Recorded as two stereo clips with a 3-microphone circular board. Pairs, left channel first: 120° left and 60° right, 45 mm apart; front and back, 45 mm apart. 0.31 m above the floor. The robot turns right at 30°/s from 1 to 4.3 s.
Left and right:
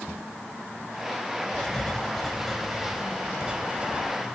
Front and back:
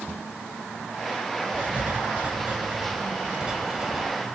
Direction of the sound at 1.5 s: Straight behind.